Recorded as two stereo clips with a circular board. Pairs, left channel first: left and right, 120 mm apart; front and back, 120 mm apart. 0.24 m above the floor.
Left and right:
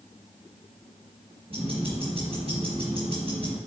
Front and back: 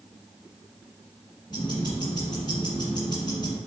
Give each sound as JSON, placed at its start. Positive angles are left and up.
{"t": 1.5, "sound": "ticking", "azimuth_deg": -50, "distance_m": 3.5}